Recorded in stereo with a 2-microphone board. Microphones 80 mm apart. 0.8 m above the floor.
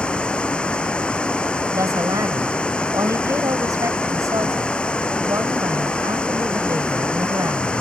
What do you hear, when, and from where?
0.0 s running water: 10° left (ahead or behind)
1.7 s a woman speaking: 45° right (ahead or behind)